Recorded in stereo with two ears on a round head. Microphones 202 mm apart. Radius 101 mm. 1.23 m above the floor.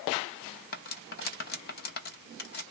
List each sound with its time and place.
0.7 s cutlery clinking: 45° left (ahead or behind), 0.7 m